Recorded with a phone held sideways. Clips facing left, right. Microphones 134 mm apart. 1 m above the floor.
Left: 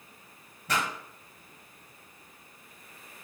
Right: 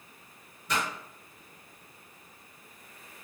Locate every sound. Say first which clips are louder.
0.7 s a pop: left 1 dB; 75° left (ahead or behind), 1.7 m